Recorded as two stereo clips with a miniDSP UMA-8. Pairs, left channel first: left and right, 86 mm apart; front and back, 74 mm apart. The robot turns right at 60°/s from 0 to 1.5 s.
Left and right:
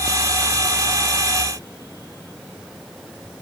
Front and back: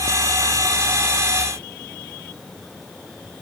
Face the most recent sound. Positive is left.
No sound to turn to.